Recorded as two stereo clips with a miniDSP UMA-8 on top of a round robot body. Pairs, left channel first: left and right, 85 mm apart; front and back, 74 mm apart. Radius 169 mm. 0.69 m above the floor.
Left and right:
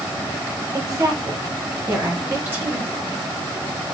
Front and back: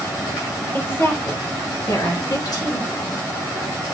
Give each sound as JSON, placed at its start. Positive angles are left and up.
{"t": 0.7, "sound": "a woman speaking", "azimuth_deg": -55, "distance_m": 1.1}